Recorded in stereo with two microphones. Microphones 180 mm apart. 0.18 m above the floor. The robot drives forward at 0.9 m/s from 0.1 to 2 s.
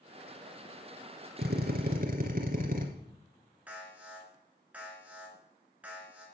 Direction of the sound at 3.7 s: 10° right (ahead or behind).